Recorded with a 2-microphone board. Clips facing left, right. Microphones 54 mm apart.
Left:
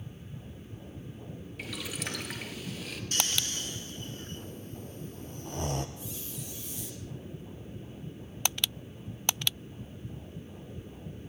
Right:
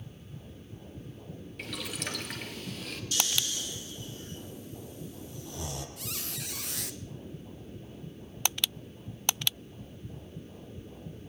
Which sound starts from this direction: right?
A squeak, at 6.0 s.